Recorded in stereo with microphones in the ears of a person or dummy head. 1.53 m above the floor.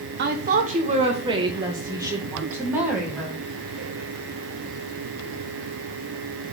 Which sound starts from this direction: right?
A woman speaking, at 0.2 s.